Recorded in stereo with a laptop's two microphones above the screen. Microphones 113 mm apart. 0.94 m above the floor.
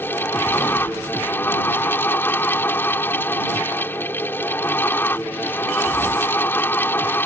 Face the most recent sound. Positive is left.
turn(degrees=20)  # may be behind; listen again after turning